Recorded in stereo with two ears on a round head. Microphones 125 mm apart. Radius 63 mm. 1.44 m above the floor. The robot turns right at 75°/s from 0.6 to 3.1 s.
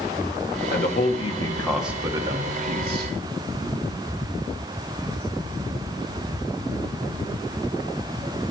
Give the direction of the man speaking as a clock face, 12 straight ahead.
9 o'clock.